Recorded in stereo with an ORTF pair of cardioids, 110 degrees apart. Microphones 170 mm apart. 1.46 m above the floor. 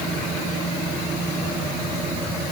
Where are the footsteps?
I don't hear footsteps.